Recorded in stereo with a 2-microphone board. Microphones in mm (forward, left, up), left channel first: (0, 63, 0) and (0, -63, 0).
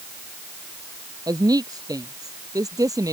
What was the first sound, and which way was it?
A woman speaking, 30° right (ahead or behind).